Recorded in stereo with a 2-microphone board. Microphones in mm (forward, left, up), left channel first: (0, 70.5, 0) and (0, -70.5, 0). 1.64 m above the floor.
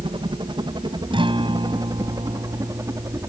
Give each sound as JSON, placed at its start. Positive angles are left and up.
{"t": 0.0, "sound": "a helicopter", "side_deg": -35}
{"t": 1.1, "sound": "a guitar", "side_deg": -35}